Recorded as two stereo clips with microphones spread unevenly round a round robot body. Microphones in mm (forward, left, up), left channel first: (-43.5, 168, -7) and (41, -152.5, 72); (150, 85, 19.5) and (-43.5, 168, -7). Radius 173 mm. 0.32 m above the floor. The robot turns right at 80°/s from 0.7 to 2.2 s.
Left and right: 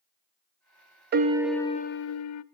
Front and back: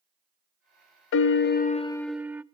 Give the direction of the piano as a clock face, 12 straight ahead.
12 o'clock.